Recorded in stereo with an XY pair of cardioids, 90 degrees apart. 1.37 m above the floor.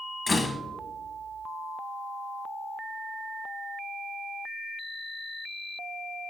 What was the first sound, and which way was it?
A door slam, 35° left.